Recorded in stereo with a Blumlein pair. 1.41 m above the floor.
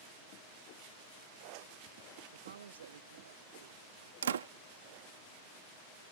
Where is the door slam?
65° right.